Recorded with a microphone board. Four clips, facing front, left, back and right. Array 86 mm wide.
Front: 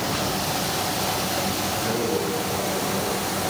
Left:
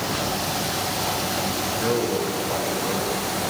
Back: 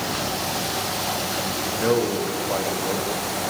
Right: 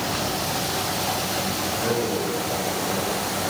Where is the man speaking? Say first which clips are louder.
Left 2 dB, back 6 dB; 165° left, 6 m.